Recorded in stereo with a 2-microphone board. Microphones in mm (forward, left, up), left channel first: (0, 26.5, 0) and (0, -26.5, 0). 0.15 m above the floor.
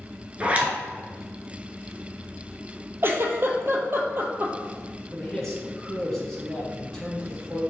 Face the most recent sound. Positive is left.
turn(degrees=10)  # may be behind; listen again after turning